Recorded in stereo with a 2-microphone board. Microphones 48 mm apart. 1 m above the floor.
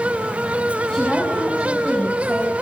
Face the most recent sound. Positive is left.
turn(degrees=15)  # may be behind; listen again after turning